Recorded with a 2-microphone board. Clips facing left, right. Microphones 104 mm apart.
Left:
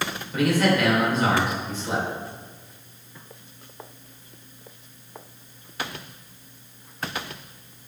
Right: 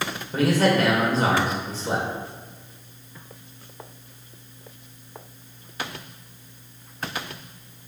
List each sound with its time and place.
0.3 s a man speaking: 35° right (ahead or behind), 2.5 m